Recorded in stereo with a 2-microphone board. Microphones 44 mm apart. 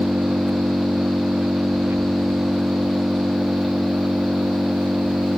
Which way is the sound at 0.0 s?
85° right.